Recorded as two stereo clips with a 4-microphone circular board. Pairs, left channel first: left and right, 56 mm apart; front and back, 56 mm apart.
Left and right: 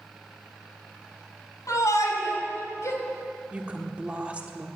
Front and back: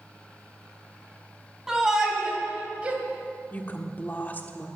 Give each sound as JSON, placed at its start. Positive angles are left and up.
{"t": 1.7, "sound": "a shout", "azimuth_deg": 100, "distance_m": 4.0}
{"t": 3.5, "sound": "a woman speaking", "azimuth_deg": -35, "distance_m": 1.4}